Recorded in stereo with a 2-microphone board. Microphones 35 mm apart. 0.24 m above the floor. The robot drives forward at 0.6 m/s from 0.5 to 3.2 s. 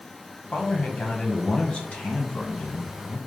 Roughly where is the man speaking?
Left.